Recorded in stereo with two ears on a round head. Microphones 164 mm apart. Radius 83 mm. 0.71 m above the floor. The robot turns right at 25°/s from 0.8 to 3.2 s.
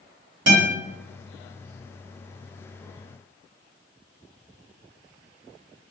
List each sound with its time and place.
0.5 s a guitar: 70° right (ahead or behind), 2.0 m